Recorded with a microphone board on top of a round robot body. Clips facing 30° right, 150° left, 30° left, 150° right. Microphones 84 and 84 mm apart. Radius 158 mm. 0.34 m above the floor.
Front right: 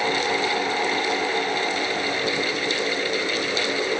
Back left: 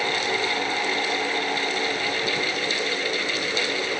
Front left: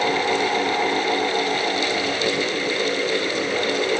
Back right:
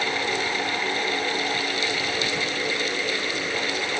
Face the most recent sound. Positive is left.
No sound to turn to.